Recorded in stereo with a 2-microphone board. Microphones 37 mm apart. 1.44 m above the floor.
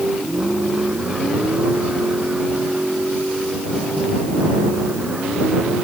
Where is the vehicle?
25° right (ahead or behind); by 5.9 s 30° right (ahead or behind).